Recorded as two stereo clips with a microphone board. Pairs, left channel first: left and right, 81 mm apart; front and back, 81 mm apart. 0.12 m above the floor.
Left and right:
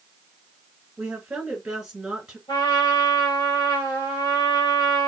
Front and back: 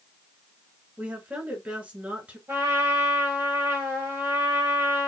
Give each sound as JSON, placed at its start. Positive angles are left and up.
{"t": 1.0, "sound": "a woman speaking", "azimuth_deg": -150, "distance_m": 1.5}
{"t": 2.5, "sound": "a trumpet", "azimuth_deg": 115, "distance_m": 1.5}